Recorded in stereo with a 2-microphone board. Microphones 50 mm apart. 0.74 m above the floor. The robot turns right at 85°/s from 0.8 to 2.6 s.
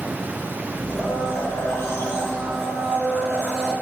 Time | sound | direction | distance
0.9 | a blender | 30° left | 3.5 m